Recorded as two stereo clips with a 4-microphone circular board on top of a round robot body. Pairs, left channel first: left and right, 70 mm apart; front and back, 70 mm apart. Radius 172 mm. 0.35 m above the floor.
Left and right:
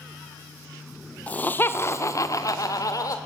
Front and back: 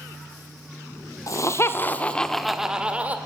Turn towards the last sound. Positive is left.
turn(degrees=115)